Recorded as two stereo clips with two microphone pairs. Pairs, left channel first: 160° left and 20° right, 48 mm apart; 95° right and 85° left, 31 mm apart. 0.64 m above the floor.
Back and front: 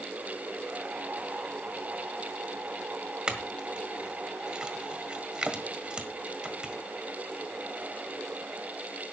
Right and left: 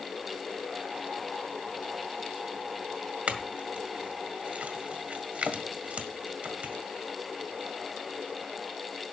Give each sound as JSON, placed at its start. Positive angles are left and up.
{"t": 3.3, "sound": "a clink", "azimuth_deg": 50, "distance_m": 1.6}